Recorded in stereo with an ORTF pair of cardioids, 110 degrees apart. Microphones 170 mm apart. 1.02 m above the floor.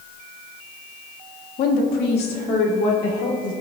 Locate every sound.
1.6 s a woman speaking: 60° left, 1.6 m; by 3.5 s 80° left, 3.5 m